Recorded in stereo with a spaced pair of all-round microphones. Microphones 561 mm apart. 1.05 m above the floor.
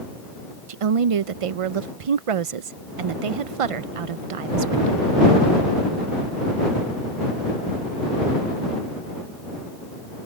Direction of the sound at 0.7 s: 80° right.